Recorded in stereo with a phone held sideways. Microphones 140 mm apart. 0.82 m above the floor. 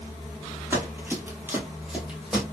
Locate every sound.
0.7 s running footsteps: 15° right (ahead or behind), 1.0 m; by 2.4 s 5° right (ahead or behind), 1.4 m